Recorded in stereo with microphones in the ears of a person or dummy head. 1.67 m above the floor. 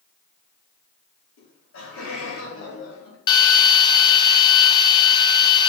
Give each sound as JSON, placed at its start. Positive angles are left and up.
{"t": 1.4, "sound": "laughter", "side_deg": 85, "distance_m": 4.5}
{"t": 3.3, "sound": "a drill", "side_deg": 25, "distance_m": 1.0}